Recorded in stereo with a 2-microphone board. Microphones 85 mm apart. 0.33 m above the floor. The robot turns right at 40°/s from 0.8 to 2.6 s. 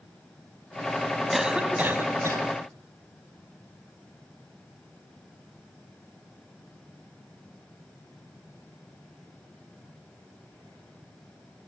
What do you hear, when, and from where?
1.3 s a cough: 175° right, 2.5 m; by 2.5 s 130° right, 2.5 m